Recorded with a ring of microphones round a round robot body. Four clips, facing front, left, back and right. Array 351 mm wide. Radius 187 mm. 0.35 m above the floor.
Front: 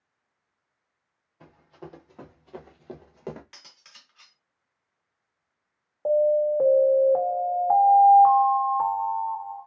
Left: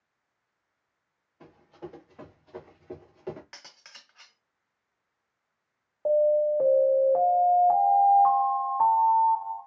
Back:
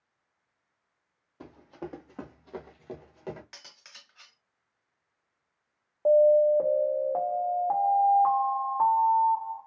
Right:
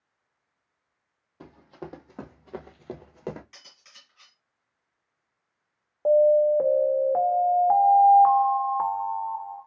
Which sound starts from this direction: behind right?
Running footsteps, at 1.4 s.